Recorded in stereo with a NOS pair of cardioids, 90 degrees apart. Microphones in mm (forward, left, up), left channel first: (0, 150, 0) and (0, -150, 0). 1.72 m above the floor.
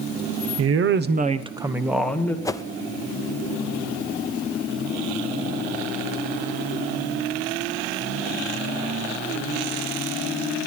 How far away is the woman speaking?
About 1.1 m.